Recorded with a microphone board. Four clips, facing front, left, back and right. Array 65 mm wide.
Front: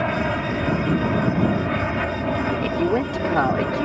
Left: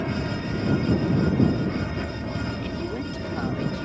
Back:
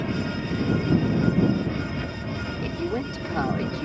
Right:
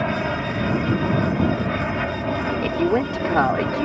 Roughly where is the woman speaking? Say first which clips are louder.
Right 10 dB, front 5 dB; ahead right.